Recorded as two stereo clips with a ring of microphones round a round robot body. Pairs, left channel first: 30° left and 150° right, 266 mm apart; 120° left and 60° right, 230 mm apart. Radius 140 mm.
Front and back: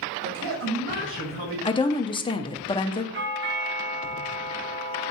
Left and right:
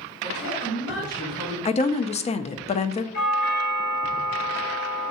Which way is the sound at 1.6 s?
85° left.